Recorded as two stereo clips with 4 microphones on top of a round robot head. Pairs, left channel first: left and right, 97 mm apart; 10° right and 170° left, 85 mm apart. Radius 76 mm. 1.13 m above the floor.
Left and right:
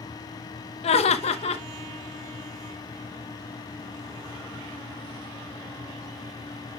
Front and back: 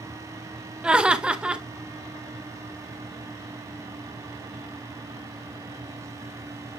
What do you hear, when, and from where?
0.8 s laughter: 90° left, 1.0 m